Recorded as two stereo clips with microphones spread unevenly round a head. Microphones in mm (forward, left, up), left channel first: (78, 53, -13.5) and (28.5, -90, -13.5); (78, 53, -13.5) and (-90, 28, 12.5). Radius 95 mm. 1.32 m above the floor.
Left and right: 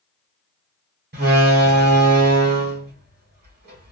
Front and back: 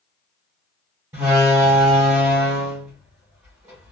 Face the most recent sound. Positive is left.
turn(degrees=-95)